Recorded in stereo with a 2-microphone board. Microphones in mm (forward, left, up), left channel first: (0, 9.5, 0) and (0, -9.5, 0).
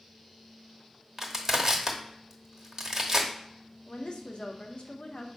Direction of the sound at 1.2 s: 20° right (ahead or behind).